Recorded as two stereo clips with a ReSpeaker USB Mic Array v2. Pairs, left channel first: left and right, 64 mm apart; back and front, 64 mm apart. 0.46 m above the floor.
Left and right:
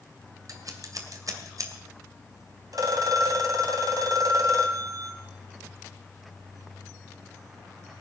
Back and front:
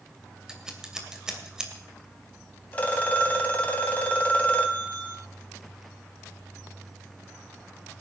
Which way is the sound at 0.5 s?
75° right.